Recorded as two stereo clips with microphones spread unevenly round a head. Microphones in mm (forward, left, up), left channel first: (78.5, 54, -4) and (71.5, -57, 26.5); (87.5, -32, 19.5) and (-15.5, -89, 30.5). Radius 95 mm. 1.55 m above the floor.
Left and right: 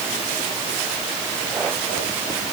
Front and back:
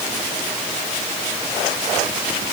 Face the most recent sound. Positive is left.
No sound to turn to.